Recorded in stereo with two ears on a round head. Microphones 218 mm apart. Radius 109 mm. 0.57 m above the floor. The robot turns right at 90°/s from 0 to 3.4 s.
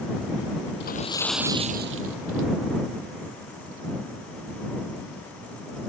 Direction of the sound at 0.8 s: 130° left.